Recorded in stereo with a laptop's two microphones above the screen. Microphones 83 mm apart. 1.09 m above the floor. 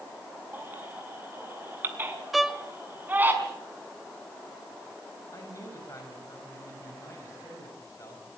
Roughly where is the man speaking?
Left.